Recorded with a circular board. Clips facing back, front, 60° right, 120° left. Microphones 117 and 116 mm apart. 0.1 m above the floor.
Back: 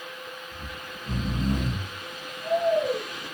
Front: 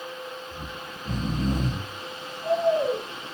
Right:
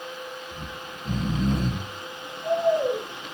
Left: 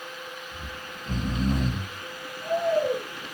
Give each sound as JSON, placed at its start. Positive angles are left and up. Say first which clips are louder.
{"t": 0.5, "sound": "snoring", "louder": "front 2 dB, right 2 dB", "azimuth_deg": -40, "distance_m": 1.0}